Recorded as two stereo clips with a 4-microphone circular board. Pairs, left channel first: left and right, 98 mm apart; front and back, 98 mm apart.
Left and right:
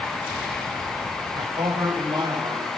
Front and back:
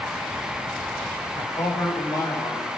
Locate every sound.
1.4 s a man speaking: 50° right, 7 m